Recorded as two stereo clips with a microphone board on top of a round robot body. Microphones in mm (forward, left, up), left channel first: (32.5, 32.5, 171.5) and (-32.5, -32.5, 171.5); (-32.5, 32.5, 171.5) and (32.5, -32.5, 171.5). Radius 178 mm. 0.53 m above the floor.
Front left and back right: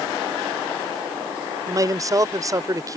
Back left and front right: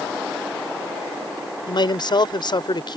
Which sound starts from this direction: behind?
A man speaking, at 1.7 s.